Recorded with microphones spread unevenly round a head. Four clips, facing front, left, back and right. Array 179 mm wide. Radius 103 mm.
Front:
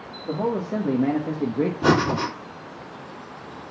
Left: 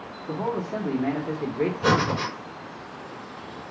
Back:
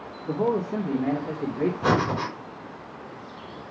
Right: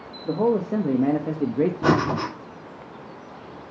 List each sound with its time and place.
0.2 s a man speaking: 85° right, 1.7 m; by 1.7 s 50° right, 0.9 m
1.8 s breathing: 40° right, 3 m